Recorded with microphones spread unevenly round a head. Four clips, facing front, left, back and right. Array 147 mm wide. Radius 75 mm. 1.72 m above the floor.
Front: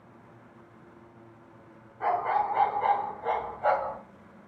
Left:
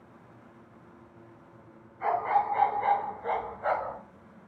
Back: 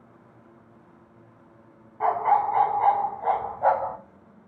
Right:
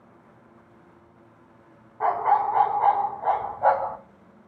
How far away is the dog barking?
About 4 m.